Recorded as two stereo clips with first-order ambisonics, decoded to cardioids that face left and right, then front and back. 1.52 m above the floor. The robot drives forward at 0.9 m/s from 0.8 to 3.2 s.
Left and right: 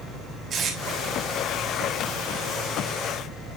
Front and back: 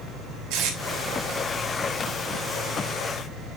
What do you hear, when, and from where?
0.5 s tape being pulled: 155° right, 3.5 m